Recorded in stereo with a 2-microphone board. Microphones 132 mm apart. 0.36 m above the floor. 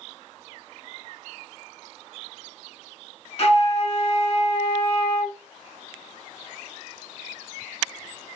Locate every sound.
3.4 s a flute: 45° left (ahead or behind), 0.7 m